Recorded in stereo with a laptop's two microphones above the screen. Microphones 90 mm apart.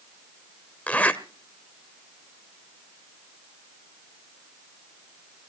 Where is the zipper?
15° left (ahead or behind), 1.1 m.